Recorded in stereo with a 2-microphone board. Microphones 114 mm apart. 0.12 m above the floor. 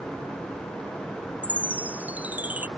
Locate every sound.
1.4 s a chime: 15° right (ahead or behind)